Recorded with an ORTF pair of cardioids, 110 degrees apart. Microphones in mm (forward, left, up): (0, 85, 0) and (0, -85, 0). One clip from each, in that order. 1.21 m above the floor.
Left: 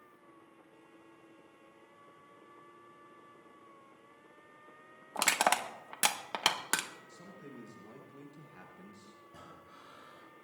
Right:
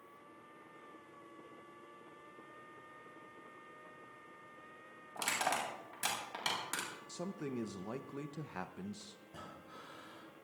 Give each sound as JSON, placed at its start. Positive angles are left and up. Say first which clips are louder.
{"t": 5.2, "sound": "crushing", "louder": "left 7 dB", "azimuth_deg": 65, "distance_m": 1.5}
{"t": 7.1, "sound": "a man speaking", "louder": "right 8 dB", "azimuth_deg": -55, "distance_m": 0.7}
{"t": 9.3, "sound": "breathing", "louder": "even", "azimuth_deg": -10, "distance_m": 3.5}